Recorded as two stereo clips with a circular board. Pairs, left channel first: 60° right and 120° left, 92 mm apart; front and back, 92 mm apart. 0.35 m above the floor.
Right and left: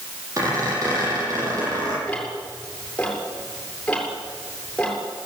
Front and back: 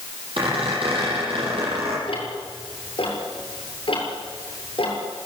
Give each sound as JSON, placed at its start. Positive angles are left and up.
{"t": 0.4, "sound": "a squeak", "azimuth_deg": 170, "distance_m": 9.5}
{"t": 2.1, "sound": "ticking", "azimuth_deg": 20, "distance_m": 7.0}